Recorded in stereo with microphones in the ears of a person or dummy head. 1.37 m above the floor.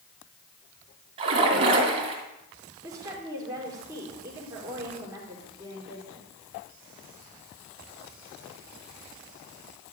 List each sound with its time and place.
1.2 s a splash: 30° right (ahead or behind), 2.5 m
2.8 s a woman speaking: 10° right (ahead or behind), 4 m